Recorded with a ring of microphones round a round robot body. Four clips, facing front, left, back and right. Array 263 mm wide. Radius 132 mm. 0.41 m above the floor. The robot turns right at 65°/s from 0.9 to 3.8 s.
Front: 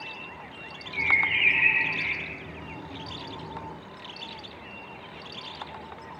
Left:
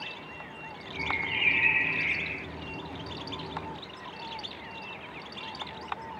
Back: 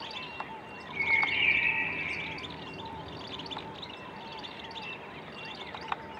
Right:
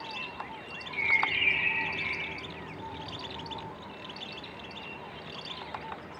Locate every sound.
0.9 s a bird: 30° right, 0.9 m; by 2.5 s 70° left, 0.9 m